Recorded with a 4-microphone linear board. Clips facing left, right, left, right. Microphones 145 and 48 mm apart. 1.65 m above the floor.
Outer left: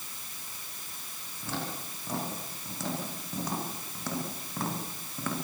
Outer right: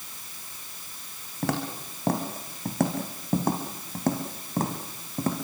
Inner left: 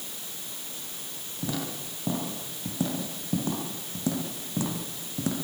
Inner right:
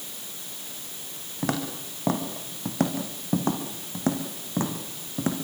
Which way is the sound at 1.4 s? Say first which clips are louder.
Outer right 7 dB, inner right 4 dB; 70° right (ahead or behind).